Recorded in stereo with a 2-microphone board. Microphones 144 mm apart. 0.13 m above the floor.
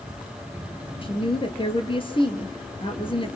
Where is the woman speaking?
35° left (ahead or behind), 2 m.